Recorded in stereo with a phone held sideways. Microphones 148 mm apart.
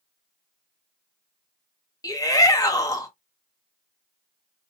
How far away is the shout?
About 1.1 m.